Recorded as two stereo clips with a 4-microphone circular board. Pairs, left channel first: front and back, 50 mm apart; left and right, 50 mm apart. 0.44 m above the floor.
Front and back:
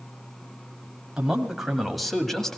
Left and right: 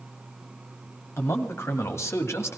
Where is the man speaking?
105° left, 2 m; by 2.6 s 80° left, 2 m.